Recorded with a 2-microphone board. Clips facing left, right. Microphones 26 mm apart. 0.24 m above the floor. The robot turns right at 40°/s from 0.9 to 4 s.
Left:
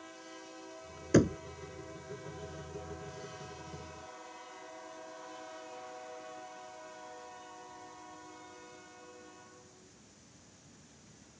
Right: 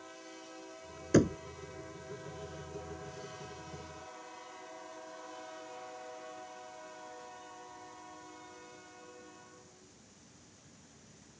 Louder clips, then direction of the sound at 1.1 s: Even; 5° left (ahead or behind).